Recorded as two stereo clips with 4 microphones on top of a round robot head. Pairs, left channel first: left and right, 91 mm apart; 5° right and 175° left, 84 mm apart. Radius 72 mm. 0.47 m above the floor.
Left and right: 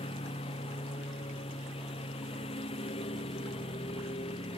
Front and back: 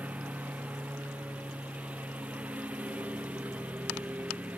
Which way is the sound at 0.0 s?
105° left.